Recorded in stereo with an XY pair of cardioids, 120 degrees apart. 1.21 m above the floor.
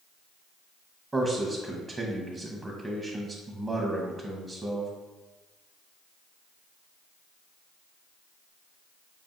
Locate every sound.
1.1 s a man speaking: 15° right, 0.6 m